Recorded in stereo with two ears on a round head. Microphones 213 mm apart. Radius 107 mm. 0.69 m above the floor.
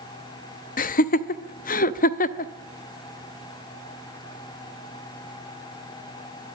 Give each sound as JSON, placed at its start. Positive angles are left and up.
{"t": 0.8, "sound": "laughter", "side_deg": 35, "distance_m": 0.7}